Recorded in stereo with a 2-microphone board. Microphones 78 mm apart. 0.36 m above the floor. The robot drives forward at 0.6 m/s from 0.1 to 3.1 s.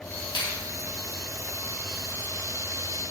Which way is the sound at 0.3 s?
65° left (ahead or behind).